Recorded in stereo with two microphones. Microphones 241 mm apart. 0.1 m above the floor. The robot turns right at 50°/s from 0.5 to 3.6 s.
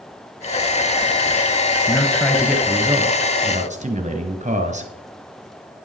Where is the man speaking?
155° left, 1.5 m; by 4.9 s 115° right, 1.5 m.